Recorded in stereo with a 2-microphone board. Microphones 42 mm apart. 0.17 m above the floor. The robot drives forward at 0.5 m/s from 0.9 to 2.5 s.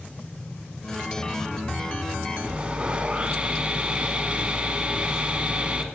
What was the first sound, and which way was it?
Sawing, 25° right (ahead or behind).